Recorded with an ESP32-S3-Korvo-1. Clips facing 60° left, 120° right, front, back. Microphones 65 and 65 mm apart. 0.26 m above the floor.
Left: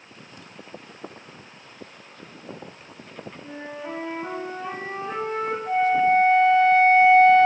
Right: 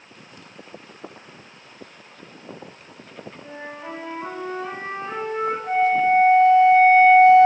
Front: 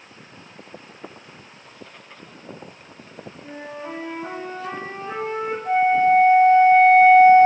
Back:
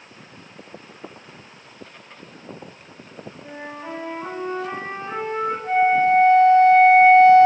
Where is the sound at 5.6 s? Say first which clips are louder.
Right 1 dB, front 1 dB; 130° right, 1.7 m.